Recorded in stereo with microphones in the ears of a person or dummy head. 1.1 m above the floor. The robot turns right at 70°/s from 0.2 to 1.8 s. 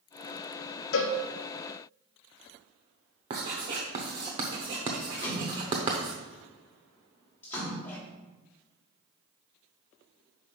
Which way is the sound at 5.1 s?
10° left (ahead or behind).